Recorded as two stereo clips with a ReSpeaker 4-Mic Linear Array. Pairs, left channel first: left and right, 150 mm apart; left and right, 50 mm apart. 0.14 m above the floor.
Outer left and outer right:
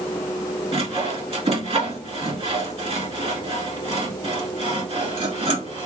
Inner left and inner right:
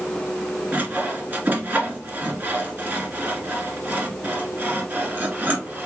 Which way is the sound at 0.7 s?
35° right (ahead or behind).